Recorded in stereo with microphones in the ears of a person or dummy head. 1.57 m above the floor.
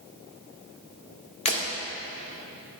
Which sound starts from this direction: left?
Breaking glass, at 1.4 s.